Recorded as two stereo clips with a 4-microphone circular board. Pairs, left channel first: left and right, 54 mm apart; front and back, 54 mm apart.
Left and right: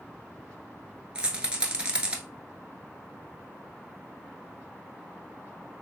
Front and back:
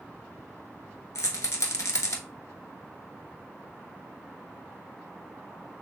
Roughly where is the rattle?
Ahead.